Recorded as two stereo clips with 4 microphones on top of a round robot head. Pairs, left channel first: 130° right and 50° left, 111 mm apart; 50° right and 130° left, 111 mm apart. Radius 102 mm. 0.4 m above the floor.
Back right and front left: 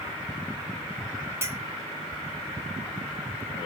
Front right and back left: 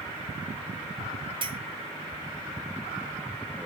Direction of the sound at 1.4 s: 110° left.